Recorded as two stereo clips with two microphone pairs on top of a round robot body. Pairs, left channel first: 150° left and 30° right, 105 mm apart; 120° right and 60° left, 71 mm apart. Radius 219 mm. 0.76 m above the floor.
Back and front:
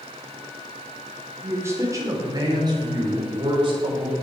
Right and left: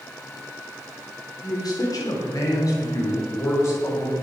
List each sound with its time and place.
1.4 s a man speaking: 95° right, 3.5 m; by 4.1 s 65° right, 5.5 m